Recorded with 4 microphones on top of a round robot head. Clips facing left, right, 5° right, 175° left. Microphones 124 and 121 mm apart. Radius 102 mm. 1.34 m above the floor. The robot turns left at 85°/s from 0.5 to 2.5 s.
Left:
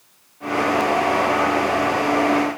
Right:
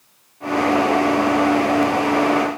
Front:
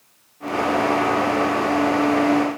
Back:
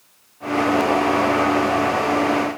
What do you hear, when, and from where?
Only background noise.